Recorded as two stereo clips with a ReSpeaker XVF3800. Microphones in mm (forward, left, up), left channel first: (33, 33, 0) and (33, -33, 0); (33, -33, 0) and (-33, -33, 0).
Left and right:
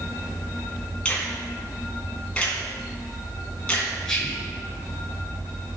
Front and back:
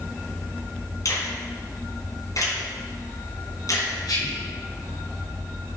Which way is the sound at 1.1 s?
15° left.